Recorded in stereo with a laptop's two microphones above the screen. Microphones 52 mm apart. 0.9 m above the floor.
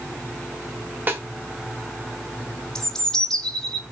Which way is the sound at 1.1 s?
40° right (ahead or behind).